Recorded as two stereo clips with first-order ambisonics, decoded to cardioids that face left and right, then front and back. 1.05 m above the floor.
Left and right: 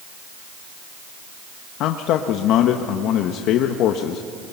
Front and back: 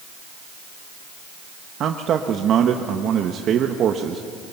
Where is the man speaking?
125° left, 1.1 m.